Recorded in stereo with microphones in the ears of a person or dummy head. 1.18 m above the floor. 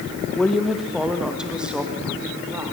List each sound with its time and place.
0.4 s a woman speaking: centre (ahead or behind), 1.2 m; by 2.7 s 10° right (ahead or behind), 2.5 m